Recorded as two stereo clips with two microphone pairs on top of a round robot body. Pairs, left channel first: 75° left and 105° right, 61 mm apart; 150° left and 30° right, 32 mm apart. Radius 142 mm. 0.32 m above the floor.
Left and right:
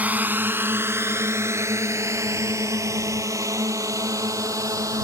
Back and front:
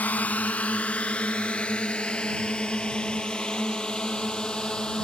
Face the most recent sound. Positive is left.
turn(degrees=-140)